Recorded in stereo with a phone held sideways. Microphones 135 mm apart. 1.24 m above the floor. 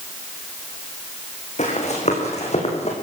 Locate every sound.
1.6 s running footsteps: 55° left (ahead or behind), 6 m; by 2.9 s 50° left (ahead or behind), 5 m